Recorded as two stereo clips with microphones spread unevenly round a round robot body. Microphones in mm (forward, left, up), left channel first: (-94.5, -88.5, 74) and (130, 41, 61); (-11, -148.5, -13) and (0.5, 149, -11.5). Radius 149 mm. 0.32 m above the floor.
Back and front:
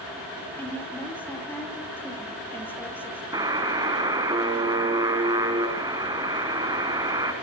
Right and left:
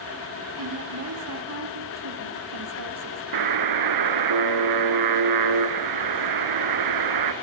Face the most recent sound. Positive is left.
turn(degrees=105)